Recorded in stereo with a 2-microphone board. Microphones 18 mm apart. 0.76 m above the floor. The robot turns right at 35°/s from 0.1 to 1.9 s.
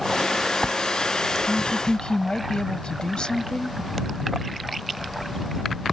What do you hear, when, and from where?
1.5 s a woman speaking: 70° left (ahead or behind); by 3.8 s 55° left (ahead or behind)